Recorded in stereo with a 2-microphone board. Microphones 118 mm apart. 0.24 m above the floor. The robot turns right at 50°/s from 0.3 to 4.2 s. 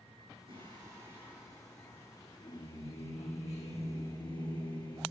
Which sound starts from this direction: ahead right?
Singing, at 0.5 s.